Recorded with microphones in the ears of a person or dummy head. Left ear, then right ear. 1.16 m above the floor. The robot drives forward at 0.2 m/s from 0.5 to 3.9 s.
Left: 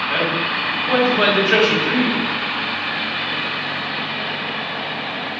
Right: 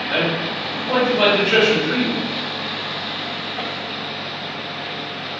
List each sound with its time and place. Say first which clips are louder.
0.1 s a man speaking: right 1 dB; 20° left (ahead or behind), 1.9 m; by 2.2 s 25° left (ahead or behind), 1.6 m